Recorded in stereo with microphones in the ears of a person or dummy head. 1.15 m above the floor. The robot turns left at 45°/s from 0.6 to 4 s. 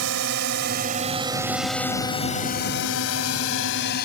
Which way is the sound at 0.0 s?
65° right (ahead or behind).